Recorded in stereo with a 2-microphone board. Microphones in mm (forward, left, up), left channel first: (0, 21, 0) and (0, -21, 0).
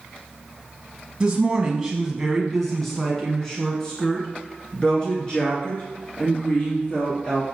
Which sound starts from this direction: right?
A woman speaking, at 1.2 s.